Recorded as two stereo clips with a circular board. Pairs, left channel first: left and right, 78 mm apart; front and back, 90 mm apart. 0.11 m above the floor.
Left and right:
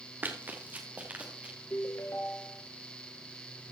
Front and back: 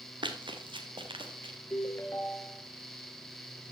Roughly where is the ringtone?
Ahead left.